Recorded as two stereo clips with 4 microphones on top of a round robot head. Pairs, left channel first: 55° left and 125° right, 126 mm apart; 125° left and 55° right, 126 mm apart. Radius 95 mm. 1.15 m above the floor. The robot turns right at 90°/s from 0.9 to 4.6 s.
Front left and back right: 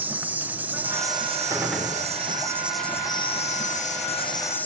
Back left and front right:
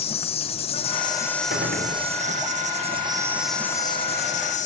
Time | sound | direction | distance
0.0 | an insect | 160° left | 1.3 m
1.5 | a gunshot | 60° right | 4.5 m